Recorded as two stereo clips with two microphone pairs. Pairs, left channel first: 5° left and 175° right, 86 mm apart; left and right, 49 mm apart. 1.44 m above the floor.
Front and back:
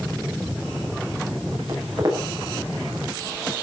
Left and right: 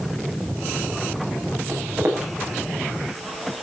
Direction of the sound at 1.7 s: 125° right.